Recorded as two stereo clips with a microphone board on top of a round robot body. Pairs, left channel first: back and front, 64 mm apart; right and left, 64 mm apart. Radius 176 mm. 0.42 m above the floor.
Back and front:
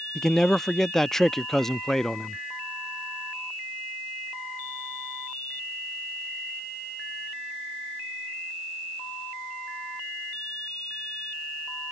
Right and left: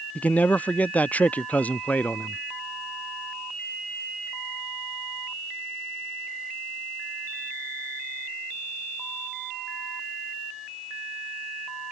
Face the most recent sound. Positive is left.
turn(degrees=-105)